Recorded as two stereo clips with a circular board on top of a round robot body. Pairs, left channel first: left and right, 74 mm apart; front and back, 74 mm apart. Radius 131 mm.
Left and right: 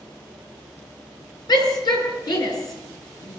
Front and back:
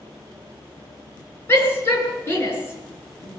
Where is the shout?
60° left, 8.5 m; by 3.4 s 55° left, 9.5 m.